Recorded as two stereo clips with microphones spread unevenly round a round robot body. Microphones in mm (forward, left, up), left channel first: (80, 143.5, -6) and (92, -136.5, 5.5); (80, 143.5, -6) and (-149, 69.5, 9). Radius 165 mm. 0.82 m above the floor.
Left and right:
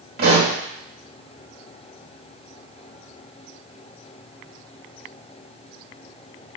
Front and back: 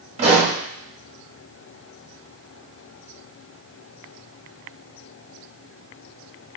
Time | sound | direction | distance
0.2 | a pop | 115° right | 1.0 m